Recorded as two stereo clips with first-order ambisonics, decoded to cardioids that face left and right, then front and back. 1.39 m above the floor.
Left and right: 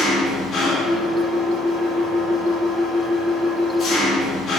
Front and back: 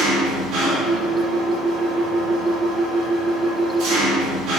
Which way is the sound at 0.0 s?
155° left.